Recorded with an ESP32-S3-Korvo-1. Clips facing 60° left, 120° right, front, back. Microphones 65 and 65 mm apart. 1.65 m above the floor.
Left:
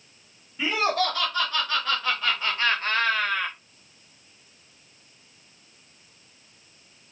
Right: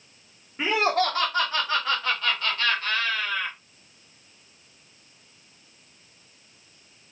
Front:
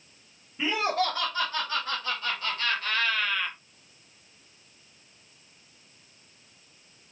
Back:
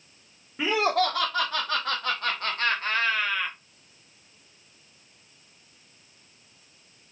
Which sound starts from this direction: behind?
Laughter, at 0.6 s.